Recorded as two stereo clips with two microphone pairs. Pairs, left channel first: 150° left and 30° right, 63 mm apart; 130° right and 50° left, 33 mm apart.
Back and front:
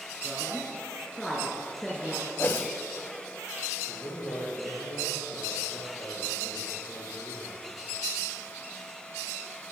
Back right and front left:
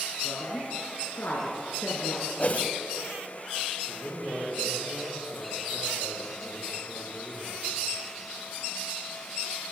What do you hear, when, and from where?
0.2 s a woman speaking: 125° right, 4 m
2.4 s a whoosh: 160° right, 1.0 m
3.9 s a man speaking: 175° left, 9 m